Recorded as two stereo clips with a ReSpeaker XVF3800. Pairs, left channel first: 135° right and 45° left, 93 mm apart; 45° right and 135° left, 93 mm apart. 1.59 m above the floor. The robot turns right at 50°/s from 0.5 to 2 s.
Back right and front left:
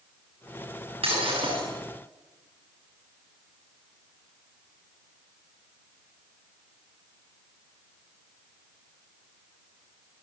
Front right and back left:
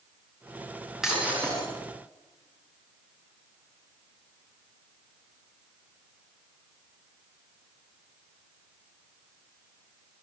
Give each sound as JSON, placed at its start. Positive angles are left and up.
{"t": 1.0, "sound": "breaking glass", "azimuth_deg": 50, "distance_m": 9.5}